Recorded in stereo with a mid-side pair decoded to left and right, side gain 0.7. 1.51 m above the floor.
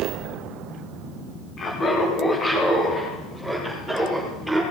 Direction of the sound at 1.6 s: 35° left.